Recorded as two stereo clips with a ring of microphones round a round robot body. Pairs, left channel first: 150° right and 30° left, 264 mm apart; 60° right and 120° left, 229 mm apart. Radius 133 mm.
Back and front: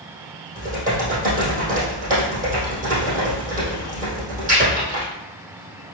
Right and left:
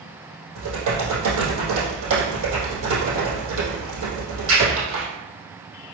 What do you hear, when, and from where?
0.6 s typing on a keyboard: 95° left, 3.5 m